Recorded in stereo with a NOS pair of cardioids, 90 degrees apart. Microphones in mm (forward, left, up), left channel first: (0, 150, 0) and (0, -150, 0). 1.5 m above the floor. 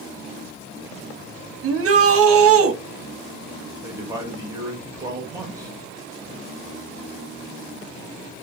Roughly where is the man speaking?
Ahead.